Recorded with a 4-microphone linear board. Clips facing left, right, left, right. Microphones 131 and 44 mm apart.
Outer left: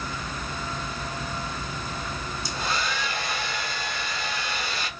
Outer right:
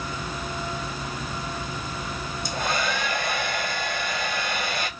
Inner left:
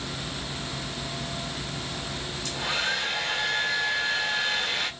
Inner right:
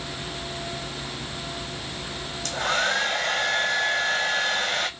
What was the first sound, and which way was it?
A hair dryer, 55° right (ahead or behind).